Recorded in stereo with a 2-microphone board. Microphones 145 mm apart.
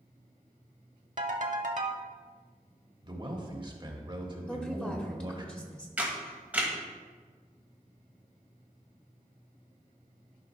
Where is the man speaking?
35° right (ahead or behind), 1.2 m.